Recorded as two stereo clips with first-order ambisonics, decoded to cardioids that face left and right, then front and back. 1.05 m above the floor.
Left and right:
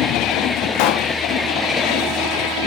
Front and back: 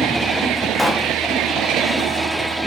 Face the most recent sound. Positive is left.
turn(degrees=85)